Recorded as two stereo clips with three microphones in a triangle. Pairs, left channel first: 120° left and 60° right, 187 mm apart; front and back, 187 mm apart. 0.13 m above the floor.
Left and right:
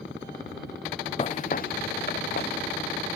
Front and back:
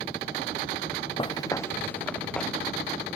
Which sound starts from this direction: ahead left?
Footsteps, at 1.2 s.